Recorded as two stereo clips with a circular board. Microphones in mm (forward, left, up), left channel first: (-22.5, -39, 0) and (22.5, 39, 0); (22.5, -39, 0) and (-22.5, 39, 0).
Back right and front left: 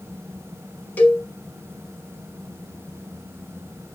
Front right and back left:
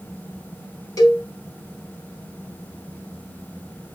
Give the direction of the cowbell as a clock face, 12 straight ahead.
2 o'clock.